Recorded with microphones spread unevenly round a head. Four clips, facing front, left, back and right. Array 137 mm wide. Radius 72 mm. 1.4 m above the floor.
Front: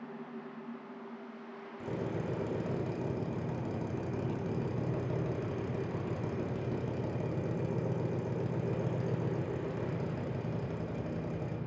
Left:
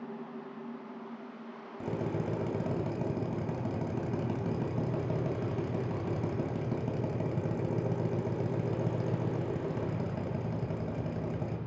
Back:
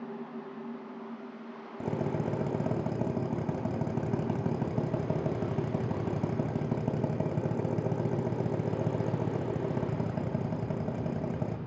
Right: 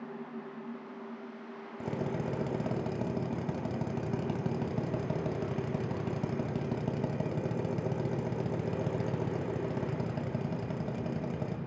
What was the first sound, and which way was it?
A drill, 170° right.